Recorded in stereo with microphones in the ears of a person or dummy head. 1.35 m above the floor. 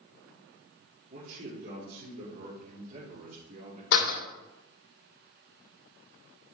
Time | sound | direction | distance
1.1 | a man speaking | 45° right (ahead or behind) | 2.5 m
3.9 | a door slam | 70° left (ahead or behind) | 2.5 m